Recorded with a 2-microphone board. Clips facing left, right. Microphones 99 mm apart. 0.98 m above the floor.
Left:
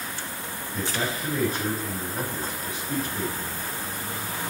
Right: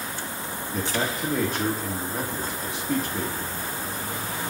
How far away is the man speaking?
About 1.8 m.